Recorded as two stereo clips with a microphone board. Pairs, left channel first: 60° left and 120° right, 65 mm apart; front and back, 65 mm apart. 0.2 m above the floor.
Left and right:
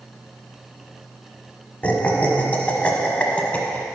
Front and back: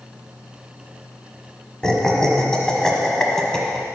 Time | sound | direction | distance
1.8 | laughter | 65° left | 1.1 m